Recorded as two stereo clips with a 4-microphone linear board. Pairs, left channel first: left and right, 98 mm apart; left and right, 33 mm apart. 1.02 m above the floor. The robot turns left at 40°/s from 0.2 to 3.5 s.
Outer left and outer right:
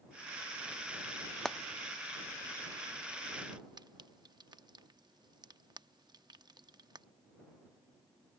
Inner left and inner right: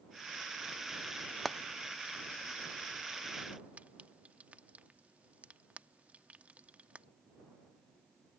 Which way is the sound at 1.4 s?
10° left (ahead or behind).